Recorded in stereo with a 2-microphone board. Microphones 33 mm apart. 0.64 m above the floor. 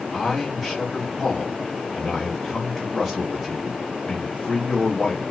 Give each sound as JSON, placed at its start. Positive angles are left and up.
{"t": 0.1, "sound": "a man speaking", "side_deg": 0, "distance_m": 1.1}